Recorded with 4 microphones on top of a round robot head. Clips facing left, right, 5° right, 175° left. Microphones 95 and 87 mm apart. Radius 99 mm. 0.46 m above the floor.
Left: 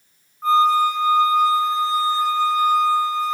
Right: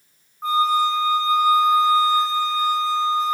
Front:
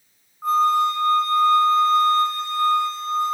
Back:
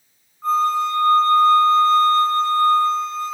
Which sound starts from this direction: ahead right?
A flute, at 0.4 s.